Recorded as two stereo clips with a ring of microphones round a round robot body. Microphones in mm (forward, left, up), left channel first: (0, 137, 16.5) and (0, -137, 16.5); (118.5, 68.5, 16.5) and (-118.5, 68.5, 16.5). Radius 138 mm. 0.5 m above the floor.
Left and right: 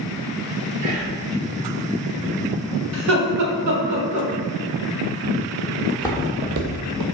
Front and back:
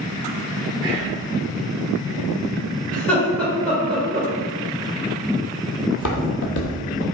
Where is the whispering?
115° right, 1.8 m.